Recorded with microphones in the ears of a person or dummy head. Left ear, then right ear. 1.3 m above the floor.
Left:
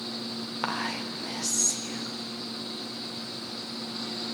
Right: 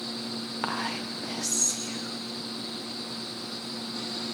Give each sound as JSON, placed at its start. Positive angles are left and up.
{"t": 0.6, "sound": "whispering", "side_deg": 0, "distance_m": 0.6}